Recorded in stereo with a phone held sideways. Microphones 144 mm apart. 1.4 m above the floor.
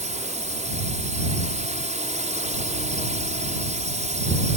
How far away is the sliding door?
I don't hear a sliding door.